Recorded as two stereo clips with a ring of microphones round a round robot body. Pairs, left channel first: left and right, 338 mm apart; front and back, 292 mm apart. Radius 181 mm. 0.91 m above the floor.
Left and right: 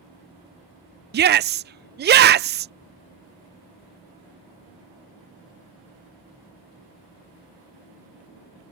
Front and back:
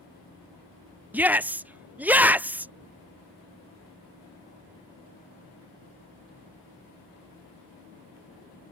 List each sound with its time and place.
1.1 s a shout: 100° right